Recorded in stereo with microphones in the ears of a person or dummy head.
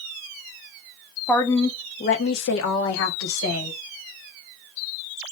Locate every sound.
1.3 s a woman speaking: 5° left (ahead or behind), 0.8 m; by 3.8 s 70° left (ahead or behind), 1.4 m